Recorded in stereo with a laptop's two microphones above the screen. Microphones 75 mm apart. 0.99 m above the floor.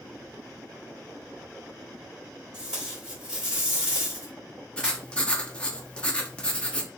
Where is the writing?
15° left (ahead or behind), 0.6 m.